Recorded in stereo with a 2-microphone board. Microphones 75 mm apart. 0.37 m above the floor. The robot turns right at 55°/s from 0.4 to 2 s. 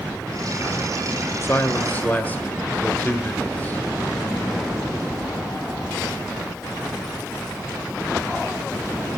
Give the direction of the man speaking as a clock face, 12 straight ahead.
8 o'clock.